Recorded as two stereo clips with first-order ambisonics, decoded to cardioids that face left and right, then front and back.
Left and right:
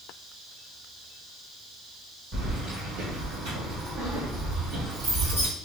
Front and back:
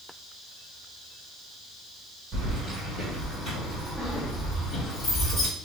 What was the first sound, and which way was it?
Keys jangling, 130° right.